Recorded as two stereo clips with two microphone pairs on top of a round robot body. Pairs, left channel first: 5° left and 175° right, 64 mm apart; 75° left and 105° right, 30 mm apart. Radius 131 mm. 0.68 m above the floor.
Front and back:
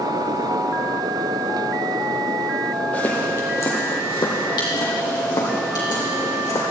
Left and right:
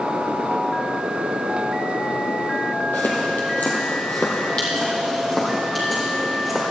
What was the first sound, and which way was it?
Footsteps, 70° left.